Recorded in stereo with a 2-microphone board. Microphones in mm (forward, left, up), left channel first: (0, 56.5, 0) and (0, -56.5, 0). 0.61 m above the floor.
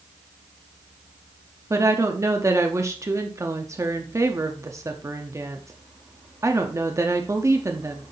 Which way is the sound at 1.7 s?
30° right (ahead or behind).